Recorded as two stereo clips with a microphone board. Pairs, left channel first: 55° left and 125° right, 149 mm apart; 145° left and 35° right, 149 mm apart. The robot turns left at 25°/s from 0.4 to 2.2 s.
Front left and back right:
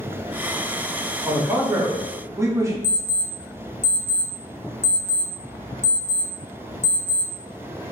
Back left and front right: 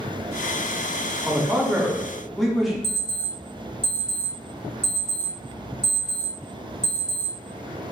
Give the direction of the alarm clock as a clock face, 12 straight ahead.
9 o'clock.